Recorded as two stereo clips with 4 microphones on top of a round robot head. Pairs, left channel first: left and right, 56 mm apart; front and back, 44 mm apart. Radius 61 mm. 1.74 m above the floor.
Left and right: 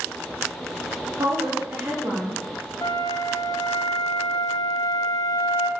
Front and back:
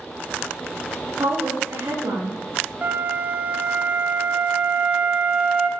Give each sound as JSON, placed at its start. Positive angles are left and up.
{"t": 1.2, "sound": "a woman speaking", "azimuth_deg": -135, "distance_m": 1.8}
{"t": 2.8, "sound": "a flute", "azimuth_deg": 130, "distance_m": 0.8}